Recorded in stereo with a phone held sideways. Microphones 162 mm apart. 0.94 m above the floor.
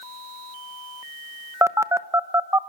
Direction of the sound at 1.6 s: 20° right (ahead or behind).